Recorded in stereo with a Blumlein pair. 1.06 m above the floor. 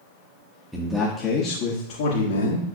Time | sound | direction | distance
0.7 | a man speaking | straight ahead | 1.0 m